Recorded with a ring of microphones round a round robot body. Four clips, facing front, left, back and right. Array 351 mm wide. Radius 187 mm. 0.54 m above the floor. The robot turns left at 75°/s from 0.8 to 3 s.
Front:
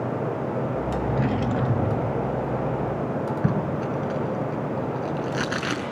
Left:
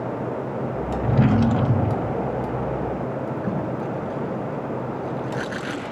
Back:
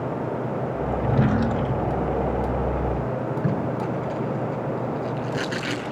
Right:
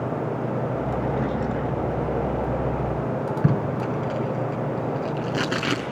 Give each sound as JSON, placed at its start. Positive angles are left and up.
{"t": 1.0, "sound": "a drawer", "azimuth_deg": 130, "distance_m": 1.0}
{"t": 3.4, "sound": "tape being pulled", "azimuth_deg": -65, "distance_m": 6.0}